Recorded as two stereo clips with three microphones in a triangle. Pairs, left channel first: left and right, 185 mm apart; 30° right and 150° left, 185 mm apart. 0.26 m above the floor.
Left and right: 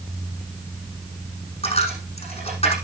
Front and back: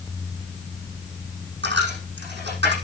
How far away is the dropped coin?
About 6.5 m.